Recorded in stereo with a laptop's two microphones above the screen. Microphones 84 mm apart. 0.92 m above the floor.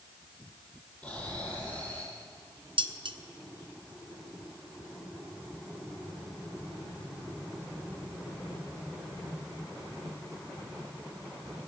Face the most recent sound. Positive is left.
turn(degrees=-70)  # may be behind; listen again after turning